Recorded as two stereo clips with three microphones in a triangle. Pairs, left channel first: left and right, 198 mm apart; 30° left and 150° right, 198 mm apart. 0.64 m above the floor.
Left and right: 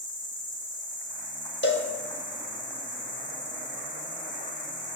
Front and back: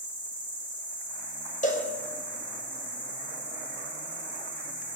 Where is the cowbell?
75° left, 0.7 m.